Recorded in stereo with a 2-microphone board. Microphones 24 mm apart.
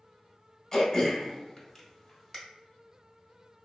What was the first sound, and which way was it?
Throat clearing, 15° left (ahead or behind).